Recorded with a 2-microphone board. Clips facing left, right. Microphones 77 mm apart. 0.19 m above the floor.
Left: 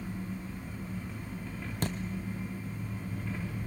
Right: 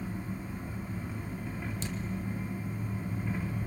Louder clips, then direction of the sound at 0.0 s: Right 1 dB; 10° right (ahead or behind).